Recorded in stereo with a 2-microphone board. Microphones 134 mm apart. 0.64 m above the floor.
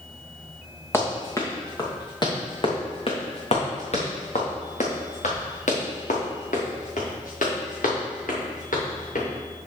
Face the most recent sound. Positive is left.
turn(degrees=85)